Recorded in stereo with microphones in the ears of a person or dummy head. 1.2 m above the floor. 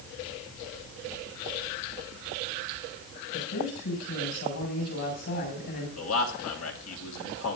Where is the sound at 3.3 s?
60° left (ahead or behind), 7.5 m.